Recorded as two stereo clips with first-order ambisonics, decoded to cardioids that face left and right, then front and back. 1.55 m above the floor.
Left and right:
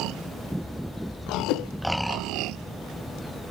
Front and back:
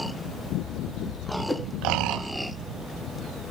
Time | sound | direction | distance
1.5 | a whoosh | 85° left | 1.0 m